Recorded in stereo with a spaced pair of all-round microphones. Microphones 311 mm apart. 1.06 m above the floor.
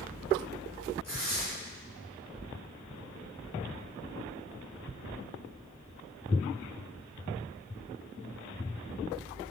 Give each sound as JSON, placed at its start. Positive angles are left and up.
{"t": 1.0, "sound": "tearing paper", "side_deg": -55, "distance_m": 3.5}